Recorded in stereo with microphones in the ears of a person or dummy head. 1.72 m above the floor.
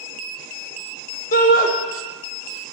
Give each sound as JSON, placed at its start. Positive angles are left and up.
{"t": 1.3, "sound": "a shout", "side_deg": 45, "distance_m": 0.9}